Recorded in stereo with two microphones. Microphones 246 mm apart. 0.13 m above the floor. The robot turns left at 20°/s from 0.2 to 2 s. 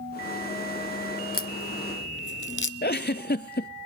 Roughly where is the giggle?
Left.